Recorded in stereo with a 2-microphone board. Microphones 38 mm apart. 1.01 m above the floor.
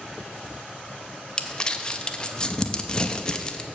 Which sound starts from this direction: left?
Crumpling, at 1.4 s.